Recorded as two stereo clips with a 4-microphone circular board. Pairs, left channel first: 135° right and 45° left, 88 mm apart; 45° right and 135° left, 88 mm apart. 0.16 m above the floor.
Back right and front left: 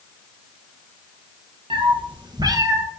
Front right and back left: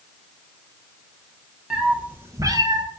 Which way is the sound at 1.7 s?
50° left.